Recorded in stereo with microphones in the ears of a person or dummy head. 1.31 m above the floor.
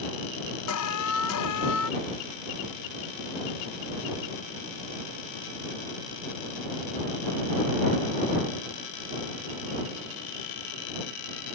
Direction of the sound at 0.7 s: 85° left.